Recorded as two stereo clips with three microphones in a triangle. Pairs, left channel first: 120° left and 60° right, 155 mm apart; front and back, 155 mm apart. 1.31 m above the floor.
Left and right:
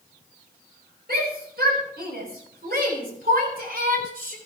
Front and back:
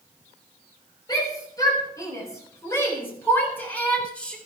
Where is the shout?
65° right, 5.5 m; by 4.4 s 85° right, 4 m.